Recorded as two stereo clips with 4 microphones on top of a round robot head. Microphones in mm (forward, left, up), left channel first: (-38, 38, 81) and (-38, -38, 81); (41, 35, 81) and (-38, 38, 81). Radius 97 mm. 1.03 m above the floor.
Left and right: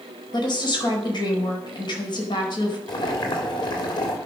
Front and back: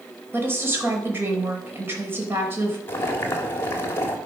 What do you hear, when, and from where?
0.3 s a woman speaking: 115° left, 5 m
2.9 s boiling: 55° left, 3 m